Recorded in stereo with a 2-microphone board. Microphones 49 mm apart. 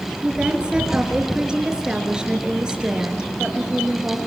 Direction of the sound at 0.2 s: 15° right (ahead or behind).